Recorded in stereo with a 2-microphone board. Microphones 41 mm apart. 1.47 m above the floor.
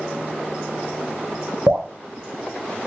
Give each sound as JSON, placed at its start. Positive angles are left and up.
{"t": 1.7, "sound": "dripping", "side_deg": -65, "distance_m": 0.7}